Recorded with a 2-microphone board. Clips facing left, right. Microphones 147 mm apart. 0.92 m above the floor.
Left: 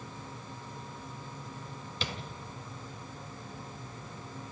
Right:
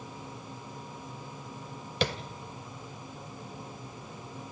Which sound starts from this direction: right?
Tapping, at 2.0 s.